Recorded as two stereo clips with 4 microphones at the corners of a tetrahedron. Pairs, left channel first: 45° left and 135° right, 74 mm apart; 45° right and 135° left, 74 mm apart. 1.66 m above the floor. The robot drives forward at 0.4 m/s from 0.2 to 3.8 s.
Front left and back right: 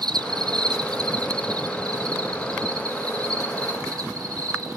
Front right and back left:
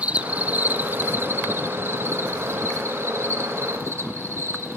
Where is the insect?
150° right, 0.7 m; by 4.8 s 170° right, 2 m.